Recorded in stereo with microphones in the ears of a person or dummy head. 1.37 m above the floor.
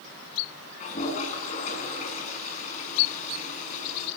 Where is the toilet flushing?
40° left (ahead or behind), 8 m.